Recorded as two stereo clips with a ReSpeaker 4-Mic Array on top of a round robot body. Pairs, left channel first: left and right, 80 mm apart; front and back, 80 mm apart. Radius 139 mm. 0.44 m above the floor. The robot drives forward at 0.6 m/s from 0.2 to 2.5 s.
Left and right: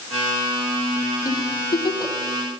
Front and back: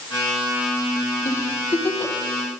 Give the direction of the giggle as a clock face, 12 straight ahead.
10 o'clock.